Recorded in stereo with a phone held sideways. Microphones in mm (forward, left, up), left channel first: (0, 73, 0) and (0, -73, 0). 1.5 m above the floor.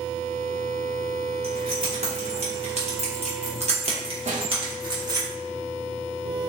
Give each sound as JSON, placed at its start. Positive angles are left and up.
{"t": 1.4, "sound": "keys jangling", "side_deg": -40, "distance_m": 1.6}
{"t": 4.3, "sound": "a snare drum", "side_deg": -55, "distance_m": 1.1}